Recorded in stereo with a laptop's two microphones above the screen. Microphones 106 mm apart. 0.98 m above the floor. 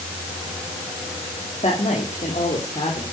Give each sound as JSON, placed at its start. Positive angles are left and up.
{"t": 1.6, "sound": "a woman speaking", "side_deg": 75, "distance_m": 2.5}